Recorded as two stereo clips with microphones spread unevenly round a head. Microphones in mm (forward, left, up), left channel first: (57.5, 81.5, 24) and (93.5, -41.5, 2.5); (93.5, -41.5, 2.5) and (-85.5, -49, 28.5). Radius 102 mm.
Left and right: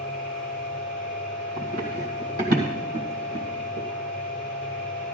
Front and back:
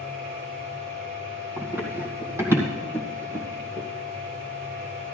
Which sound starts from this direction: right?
Running footsteps, at 1.6 s.